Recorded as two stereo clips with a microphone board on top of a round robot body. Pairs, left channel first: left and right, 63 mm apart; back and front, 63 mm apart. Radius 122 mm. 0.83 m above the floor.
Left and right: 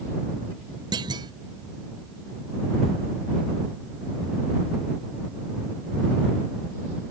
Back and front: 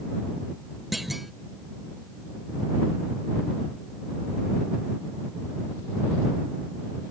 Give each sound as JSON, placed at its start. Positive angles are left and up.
{"t": 0.9, "sound": "a clunk", "azimuth_deg": -90}